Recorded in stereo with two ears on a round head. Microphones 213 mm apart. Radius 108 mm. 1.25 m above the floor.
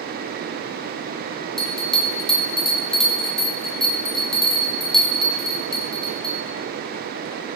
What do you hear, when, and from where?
1.6 s a bell: centre (ahead or behind), 0.5 m